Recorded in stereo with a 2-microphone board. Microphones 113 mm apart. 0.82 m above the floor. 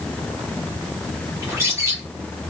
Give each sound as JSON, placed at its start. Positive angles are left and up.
{"t": 1.4, "sound": "a bird", "side_deg": -25, "distance_m": 2.5}